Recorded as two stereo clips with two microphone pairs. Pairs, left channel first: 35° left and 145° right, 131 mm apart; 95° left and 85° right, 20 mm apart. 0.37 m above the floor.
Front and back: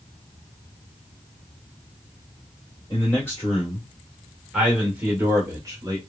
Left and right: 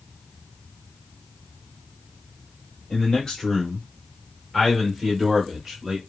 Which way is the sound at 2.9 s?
65° left.